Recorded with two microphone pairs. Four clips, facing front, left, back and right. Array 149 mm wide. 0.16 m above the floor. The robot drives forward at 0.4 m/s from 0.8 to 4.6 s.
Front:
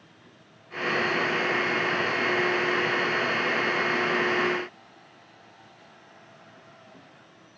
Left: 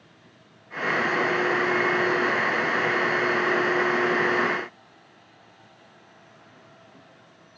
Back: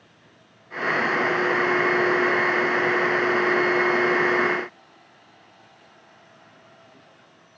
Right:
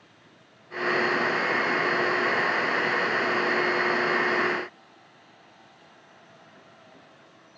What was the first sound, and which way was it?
Only background noise.